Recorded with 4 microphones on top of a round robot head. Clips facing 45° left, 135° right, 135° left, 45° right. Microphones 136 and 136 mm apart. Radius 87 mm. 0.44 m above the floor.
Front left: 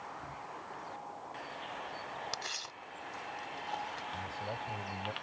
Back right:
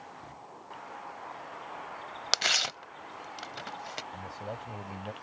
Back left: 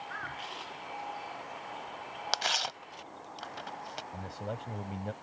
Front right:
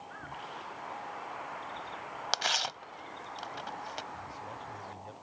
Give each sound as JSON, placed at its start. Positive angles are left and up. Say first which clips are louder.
{"t": 2.3, "sound": "tearing paper", "louder": "back right 9 dB, even", "azimuth_deg": -135}
{"t": 4.1, "sound": "a man speaking", "louder": "back right 1 dB, back left 4 dB", "azimuth_deg": 150}